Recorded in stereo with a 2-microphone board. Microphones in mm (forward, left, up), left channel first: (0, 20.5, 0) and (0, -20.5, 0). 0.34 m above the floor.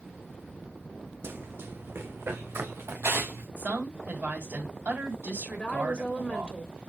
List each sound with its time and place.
1.2 s running footsteps: 70° right (ahead or behind), 0.8 m; by 3.5 s 80° right, 2.5 m
3.6 s a woman speaking: 55° right (ahead or behind), 2.5 m
5.5 s a woman speaking: 35° left (ahead or behind), 1.1 m